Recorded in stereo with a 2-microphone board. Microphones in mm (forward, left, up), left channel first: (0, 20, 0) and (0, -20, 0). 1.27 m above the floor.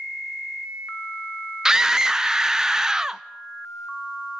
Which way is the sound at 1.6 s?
15° right (ahead or behind).